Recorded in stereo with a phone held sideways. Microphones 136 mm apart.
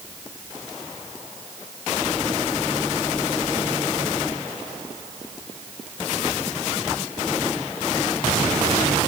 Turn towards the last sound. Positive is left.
No sound to turn to.